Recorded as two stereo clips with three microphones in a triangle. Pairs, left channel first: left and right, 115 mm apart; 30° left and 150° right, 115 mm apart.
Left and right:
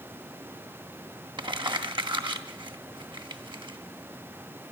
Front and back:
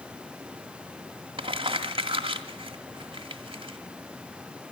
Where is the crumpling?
125° right, 1.8 m.